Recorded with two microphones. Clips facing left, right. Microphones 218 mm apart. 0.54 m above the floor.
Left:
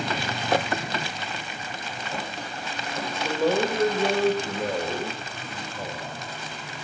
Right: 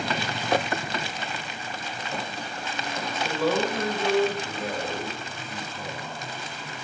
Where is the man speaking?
10° left (ahead or behind), 1.6 m; by 6.2 s 75° left (ahead or behind), 2.5 m.